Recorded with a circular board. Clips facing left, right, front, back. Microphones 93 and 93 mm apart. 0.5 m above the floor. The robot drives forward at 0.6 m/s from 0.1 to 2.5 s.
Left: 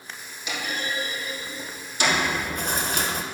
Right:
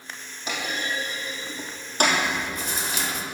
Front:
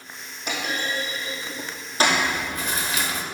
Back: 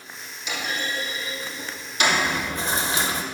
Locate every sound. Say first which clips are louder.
0.5 s a clunk: right 1 dB, front 1 dB; 40° right, 3 m; by 2.2 s 55° right, 2.5 m
2.1 s chewing: even, even; 100° left, 0.7 m; by 3.2 s 120° left, 0.8 m